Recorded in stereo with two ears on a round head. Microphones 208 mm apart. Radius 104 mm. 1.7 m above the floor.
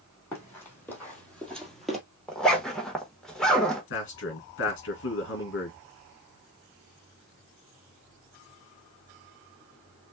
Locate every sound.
0.3 s running footsteps: 10° left (ahead or behind), 3 m; by 2.0 s centre (ahead or behind), 1.7 m
2.3 s a zipper: 5° left (ahead or behind), 1.3 m
3.9 s a man speaking: 55° left (ahead or behind), 3 m